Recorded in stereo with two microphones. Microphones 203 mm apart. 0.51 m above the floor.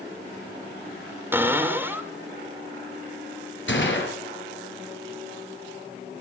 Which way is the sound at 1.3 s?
10° right (ahead or behind).